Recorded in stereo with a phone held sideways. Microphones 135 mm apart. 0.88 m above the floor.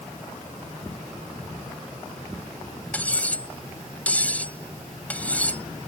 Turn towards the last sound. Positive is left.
turn(degrees=10)  # may be behind; listen again after turning